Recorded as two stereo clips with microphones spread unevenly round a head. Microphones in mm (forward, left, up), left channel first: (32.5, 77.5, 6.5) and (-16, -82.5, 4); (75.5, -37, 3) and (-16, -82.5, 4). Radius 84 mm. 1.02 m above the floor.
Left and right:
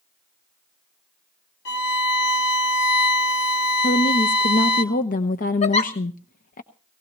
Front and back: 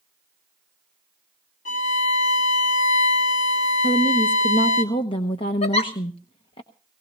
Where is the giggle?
20° left, 1.2 m.